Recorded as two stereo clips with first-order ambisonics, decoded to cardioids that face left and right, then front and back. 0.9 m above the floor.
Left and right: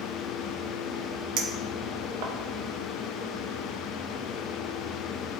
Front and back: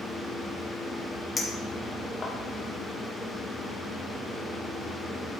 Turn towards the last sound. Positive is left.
turn(degrees=-75)